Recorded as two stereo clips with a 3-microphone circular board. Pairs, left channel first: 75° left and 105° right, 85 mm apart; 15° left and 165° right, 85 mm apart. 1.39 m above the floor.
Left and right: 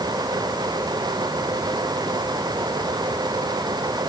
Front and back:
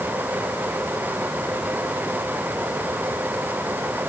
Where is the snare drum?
No snare drum in this recording.